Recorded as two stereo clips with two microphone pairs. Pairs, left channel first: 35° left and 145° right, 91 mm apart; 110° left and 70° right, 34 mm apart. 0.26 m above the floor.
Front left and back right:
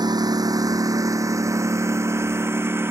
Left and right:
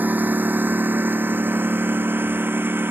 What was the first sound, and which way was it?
A lawn mower, 105° right.